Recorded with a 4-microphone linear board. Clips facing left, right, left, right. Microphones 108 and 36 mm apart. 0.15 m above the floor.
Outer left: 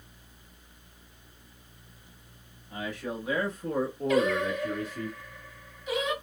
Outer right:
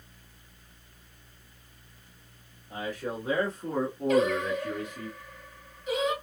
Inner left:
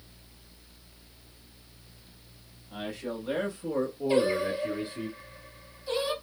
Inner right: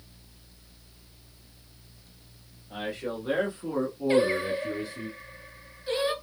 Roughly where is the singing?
Right.